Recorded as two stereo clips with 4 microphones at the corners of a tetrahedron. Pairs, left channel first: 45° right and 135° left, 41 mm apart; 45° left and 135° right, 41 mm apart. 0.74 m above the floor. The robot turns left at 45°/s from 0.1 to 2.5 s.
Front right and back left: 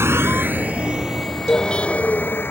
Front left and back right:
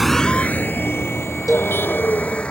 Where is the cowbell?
50° right; by 1.7 s 60° right.